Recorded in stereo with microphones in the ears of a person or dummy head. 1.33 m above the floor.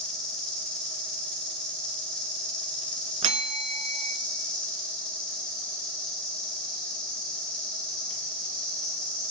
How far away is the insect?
About 1.9 m.